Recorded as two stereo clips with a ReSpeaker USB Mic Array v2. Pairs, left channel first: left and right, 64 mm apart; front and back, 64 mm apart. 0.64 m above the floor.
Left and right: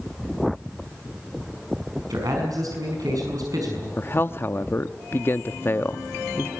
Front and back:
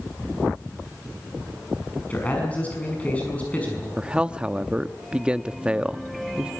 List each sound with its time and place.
2.1 s a man speaking: 70° right, 5.5 m
4.0 s a man speaking: 115° left, 0.7 m